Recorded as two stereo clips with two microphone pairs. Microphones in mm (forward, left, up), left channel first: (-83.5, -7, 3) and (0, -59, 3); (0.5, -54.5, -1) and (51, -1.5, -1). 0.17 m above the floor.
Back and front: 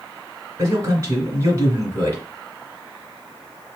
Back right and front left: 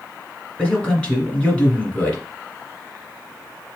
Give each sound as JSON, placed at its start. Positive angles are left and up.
{"t": 0.6, "sound": "a man speaking", "azimuth_deg": -70, "distance_m": 1.5}